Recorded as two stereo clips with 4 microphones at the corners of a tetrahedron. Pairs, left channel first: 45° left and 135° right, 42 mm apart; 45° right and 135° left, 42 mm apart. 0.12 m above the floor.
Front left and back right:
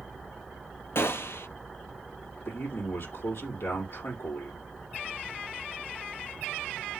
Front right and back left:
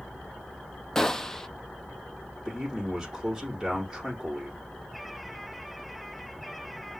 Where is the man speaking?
55° left, 5 m.